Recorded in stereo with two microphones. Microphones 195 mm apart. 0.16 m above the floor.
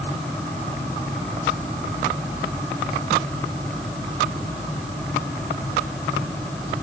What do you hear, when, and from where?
Only background noise.